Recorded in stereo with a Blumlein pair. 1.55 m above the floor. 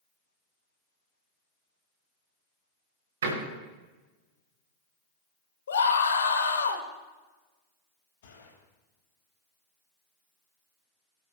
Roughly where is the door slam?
Ahead right.